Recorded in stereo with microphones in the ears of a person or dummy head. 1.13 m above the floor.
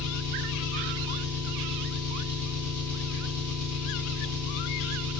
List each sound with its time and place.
0.0 s an engine running: 50° left (ahead or behind), 4.5 m